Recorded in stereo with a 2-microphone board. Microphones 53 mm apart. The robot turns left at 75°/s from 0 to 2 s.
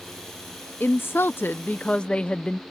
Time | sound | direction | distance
0.8 | a woman speaking | 115° left | ?